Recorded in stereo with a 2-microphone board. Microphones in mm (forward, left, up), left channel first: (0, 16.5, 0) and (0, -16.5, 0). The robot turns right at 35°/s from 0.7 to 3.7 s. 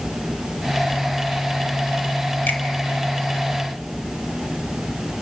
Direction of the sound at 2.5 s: 65° left (ahead or behind).